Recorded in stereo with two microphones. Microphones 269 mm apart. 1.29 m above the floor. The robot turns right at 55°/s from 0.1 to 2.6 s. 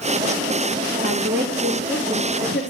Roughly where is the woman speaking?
Ahead right.